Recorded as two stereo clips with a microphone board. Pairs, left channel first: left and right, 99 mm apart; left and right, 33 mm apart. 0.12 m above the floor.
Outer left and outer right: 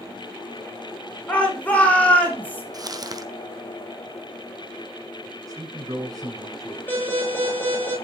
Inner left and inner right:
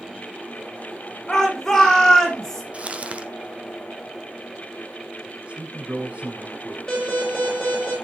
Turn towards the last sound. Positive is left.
turn(degrees=15)  # may be behind; listen again after turning